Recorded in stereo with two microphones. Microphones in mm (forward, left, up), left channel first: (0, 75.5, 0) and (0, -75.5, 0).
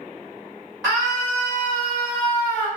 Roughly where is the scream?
Centre.